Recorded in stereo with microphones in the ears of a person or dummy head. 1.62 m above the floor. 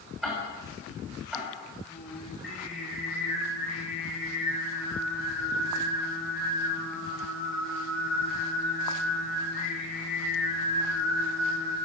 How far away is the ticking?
About 7 m.